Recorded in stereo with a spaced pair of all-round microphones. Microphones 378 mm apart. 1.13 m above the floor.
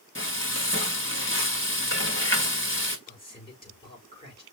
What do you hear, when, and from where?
0.1 s frying: 30° left (ahead or behind), 1.3 m
3.1 s a man speaking: 15° left (ahead or behind), 4.5 m